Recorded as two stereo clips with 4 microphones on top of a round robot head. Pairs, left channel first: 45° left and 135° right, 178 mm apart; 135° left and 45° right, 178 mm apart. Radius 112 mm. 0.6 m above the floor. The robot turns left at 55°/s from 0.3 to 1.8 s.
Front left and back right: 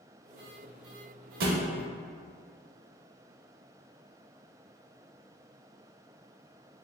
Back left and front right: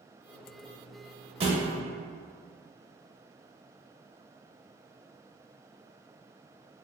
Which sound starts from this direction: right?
A thud, at 1.4 s.